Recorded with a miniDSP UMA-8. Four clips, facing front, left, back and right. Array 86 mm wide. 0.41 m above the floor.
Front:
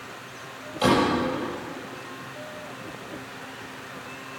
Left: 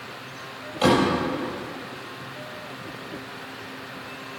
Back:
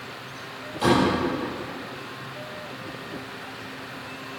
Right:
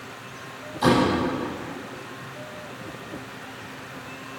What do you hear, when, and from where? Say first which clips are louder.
0.8 s a door slam: even, even; 80° left, 6.5 m